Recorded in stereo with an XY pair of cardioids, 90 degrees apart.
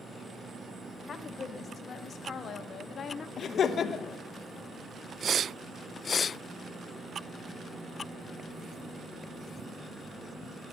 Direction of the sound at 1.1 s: 60° left.